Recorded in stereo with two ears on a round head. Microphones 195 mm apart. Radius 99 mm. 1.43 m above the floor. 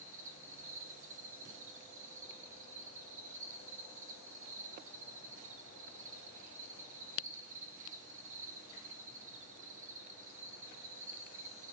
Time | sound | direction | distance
0.0 | an insect | 35° right (ahead or behind) | 1.5 m